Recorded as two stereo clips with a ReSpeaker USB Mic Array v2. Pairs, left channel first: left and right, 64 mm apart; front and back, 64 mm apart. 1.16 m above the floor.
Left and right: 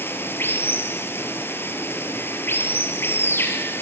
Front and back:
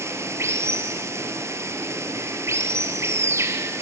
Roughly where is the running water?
Behind left.